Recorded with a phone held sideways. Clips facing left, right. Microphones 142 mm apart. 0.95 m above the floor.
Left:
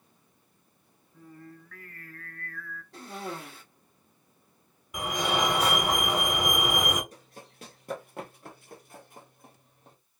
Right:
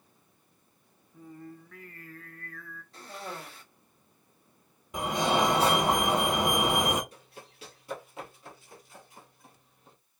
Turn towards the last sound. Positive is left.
turn(degrees=45)  # may be behind; listen again after turning